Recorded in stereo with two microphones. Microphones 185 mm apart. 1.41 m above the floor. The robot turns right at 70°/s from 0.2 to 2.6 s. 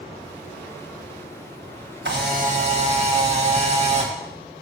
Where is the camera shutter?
75° right, 1.6 m; by 4.1 s 35° right, 1.6 m.